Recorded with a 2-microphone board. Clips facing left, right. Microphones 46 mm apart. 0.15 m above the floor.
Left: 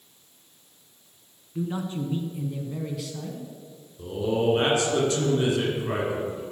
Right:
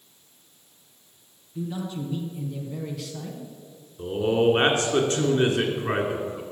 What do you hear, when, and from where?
1.6 s a man speaking: 40° left (ahead or behind), 1.6 m; by 3.5 s 15° right (ahead or behind), 1.4 m
4.0 s a man speaking: 45° right (ahead or behind), 2 m